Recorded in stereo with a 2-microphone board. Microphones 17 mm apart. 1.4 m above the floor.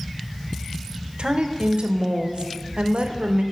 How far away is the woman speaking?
About 0.6 m.